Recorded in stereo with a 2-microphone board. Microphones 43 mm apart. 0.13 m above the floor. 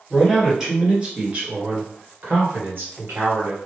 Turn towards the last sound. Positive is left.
turn(degrees=-55)  # may be behind; listen again after turning